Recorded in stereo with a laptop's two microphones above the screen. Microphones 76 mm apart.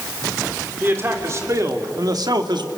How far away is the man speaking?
About 2.5 m.